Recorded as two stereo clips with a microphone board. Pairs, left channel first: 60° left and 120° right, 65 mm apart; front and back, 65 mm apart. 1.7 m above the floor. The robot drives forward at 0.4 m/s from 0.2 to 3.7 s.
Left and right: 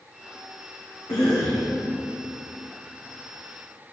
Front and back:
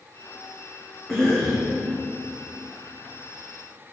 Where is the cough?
80° left, 1.5 m; by 1.7 s 90° left, 1.4 m.